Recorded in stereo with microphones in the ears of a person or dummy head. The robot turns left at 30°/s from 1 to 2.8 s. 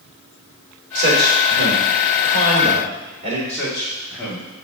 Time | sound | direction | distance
0.9 | a man speaking | 85° right | 3 m
3.5 | a man speaking | 10° left (ahead or behind) | 2.5 m